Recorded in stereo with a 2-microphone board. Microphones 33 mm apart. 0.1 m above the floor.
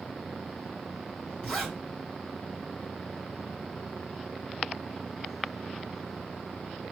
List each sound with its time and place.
1.4 s a zipper: 10° left (ahead or behind), 4 m